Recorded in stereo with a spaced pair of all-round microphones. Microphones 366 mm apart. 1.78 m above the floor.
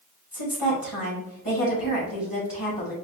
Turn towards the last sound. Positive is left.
turn(degrees=70)  # may be behind; listen again after turning